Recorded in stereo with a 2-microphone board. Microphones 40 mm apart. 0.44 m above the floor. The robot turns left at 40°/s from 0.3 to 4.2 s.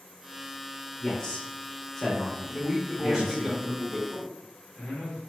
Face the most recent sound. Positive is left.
turn(degrees=20)  # may be behind; listen again after turning